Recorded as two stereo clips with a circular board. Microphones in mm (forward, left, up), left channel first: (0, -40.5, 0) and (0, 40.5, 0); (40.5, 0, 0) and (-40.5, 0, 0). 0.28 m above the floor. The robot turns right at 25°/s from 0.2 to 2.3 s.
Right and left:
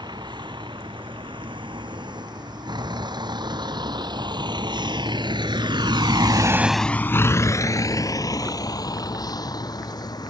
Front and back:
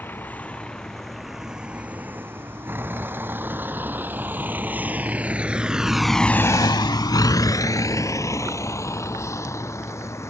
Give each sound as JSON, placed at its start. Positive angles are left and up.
{"t": 0.0, "sound": "a vehicle", "azimuth_deg": 65}